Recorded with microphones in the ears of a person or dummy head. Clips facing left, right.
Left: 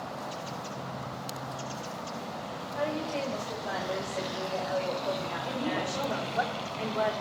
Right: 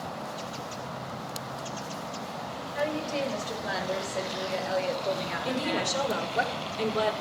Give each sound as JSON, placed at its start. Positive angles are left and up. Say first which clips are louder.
{"t": 2.8, "sound": "a woman speaking", "louder": "right 2 dB", "side_deg": -25, "distance_m": 4.5}
{"t": 5.5, "sound": "a woman speaking", "louder": "right 3 dB", "side_deg": -60, "distance_m": 4.5}